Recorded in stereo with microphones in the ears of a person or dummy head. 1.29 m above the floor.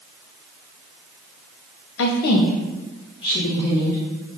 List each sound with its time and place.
2.0 s a woman speaking: 60° left (ahead or behind), 0.6 m; by 4.4 s 15° left (ahead or behind), 1.5 m